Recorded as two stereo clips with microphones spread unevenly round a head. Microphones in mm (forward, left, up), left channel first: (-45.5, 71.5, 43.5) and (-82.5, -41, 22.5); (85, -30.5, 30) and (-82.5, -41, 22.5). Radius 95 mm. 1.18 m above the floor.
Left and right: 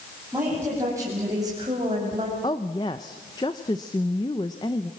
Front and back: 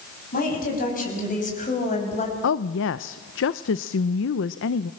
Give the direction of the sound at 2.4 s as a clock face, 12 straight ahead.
12 o'clock.